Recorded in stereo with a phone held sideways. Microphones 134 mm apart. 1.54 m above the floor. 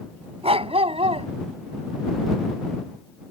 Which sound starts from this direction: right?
A dog barking, at 0.4 s.